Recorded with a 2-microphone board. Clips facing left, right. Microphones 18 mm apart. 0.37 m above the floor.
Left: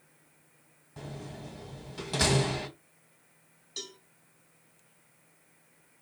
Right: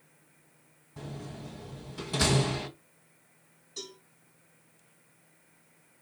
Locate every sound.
1.0 s a door slam: 20° left (ahead or behind), 1.7 m
3.8 s a cowbell: 55° left (ahead or behind), 2 m